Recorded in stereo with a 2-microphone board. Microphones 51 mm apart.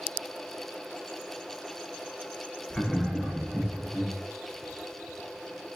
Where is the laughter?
15° left (ahead or behind), 0.5 m; by 4.1 s 25° right (ahead or behind), 1.0 m.